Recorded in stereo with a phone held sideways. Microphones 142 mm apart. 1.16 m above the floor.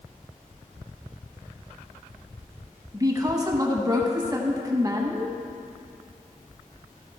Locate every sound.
2.9 s a woman speaking: 25° right (ahead or behind), 1.0 m